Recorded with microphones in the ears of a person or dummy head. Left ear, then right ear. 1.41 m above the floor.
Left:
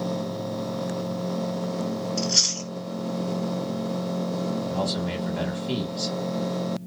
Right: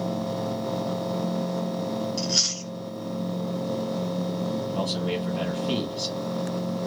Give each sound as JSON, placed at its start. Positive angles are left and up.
{"t": 2.2, "sound": "chewing", "side_deg": 15, "distance_m": 1.7}
{"t": 4.7, "sound": "a man speaking", "side_deg": 15, "distance_m": 1.6}